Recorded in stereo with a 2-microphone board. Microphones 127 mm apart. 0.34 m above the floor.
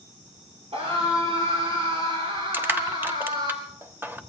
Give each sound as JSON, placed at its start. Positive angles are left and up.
{"t": 0.7, "sound": "a scream", "side_deg": -50, "distance_m": 6.5}
{"t": 2.5, "sound": "crushing", "side_deg": -15, "distance_m": 1.1}